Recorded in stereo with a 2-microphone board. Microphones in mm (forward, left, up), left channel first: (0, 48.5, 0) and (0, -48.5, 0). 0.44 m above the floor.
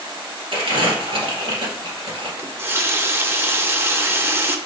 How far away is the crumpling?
About 2 m.